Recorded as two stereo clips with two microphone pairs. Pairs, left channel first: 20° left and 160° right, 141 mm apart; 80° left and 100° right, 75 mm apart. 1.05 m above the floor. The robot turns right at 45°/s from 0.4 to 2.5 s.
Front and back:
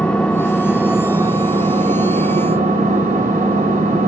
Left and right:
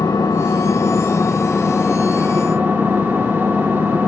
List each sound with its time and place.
0.0 s an engine running: 100° left, 2.0 m; by 4.1 s 165° right, 2.0 m